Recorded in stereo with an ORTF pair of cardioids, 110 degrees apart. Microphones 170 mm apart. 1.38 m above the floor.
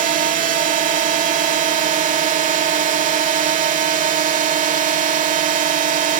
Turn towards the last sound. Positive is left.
turn(degrees=-55)